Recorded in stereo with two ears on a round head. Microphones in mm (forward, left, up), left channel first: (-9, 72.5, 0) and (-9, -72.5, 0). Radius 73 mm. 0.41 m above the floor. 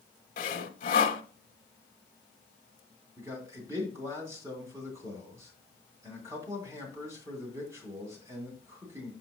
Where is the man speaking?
20° right (ahead or behind), 2.5 m.